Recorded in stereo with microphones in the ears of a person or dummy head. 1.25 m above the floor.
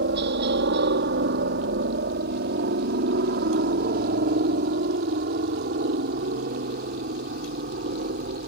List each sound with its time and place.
0.0 s a helicopter: 55° right (ahead or behind); by 8.5 s 45° right (ahead or behind)